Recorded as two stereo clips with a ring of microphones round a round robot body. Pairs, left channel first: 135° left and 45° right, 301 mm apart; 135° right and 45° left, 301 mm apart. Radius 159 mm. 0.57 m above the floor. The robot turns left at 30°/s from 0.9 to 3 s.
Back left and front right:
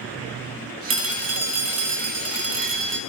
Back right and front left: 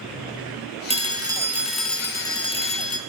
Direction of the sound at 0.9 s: 20° right.